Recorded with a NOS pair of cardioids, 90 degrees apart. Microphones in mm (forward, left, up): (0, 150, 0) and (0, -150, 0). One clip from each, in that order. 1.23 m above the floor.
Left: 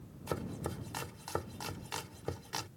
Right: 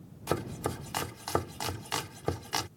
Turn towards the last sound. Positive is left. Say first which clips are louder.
# right 7 dB
turn(degrees=-50)